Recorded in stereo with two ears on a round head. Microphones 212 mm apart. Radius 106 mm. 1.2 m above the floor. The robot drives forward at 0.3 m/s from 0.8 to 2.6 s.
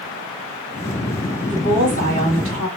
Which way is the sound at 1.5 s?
70° right (ahead or behind).